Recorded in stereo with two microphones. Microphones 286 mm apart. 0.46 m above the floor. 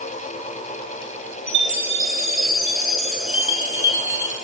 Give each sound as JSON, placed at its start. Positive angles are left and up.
{"t": 1.5, "sound": "a chime", "side_deg": -70, "distance_m": 3.5}